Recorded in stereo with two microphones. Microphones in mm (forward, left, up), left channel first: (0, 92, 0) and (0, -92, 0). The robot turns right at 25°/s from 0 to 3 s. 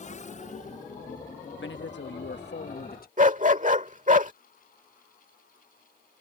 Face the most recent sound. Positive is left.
turn(degrees=-45)  # may be behind; listen again after turning